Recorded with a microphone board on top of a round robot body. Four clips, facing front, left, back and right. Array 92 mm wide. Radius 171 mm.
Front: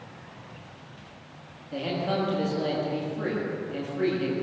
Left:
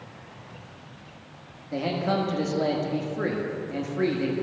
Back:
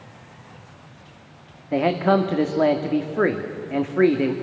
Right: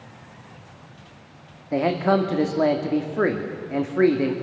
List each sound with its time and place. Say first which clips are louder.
1.7 s a man speaking: right 6 dB, back 10 dB; 145° right, 1.9 m